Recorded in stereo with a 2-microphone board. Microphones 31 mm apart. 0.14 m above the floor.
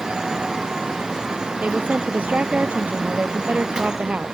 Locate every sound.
1.6 s a woman speaking: 45° right (ahead or behind)